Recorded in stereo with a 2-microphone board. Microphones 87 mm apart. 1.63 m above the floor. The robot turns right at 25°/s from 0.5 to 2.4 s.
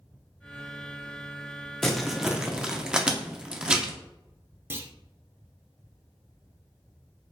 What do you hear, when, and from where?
1.8 s crumpling: 5° left (ahead or behind), 0.5 m; by 3.9 s 10° right (ahead or behind), 0.5 m
4.7 s a clunk: 25° right (ahead or behind), 0.5 m